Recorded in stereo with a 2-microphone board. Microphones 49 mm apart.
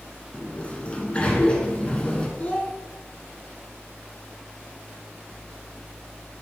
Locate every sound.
0.3 s a sliding door: 25° left (ahead or behind), 1.7 m
2.4 s a child speaking: 35° left (ahead or behind), 0.9 m